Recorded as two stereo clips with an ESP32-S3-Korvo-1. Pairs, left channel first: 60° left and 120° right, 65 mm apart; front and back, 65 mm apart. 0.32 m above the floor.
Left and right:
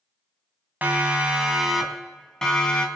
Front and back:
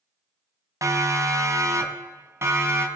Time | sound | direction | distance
0.8 | a siren | straight behind | 3 m